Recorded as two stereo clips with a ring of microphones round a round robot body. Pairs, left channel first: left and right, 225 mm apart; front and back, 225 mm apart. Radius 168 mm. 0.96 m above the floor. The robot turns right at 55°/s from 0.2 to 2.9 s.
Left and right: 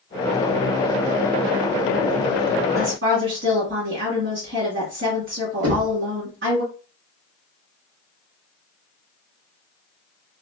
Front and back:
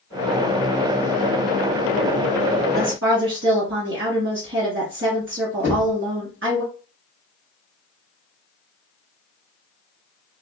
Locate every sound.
2.7 s a woman speaking: 140° right, 2 m; by 6.6 s 135° right, 2 m
5.6 s knocking: 85° right, 1.3 m